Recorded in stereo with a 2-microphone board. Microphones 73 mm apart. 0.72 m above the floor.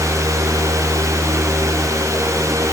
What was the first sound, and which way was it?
Only background noise.